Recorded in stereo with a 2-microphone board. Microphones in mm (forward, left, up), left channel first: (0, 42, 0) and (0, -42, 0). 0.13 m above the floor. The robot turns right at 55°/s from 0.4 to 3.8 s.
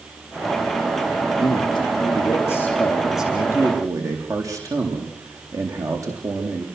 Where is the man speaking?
85° left, 7.5 m; by 6.7 s 140° right, 7.5 m.